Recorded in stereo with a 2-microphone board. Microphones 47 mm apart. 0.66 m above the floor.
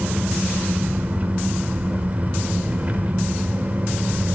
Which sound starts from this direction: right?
An engine running, at 0.0 s.